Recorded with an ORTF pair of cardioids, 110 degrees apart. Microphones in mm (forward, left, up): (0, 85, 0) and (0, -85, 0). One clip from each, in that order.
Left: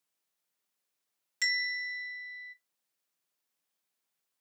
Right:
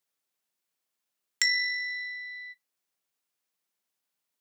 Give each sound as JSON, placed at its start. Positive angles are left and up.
{"t": 1.4, "sound": "a bell", "azimuth_deg": -60, "distance_m": 0.5}